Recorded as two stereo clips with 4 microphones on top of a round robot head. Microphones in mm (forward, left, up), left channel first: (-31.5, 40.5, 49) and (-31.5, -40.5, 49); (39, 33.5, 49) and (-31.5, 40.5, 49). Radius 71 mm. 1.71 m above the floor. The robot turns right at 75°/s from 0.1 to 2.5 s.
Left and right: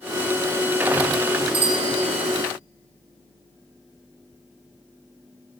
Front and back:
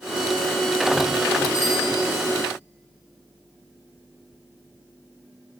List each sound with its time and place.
1.5 s a bicycle bell: 105° right, 5.5 m; by 1.9 s 75° right, 5.5 m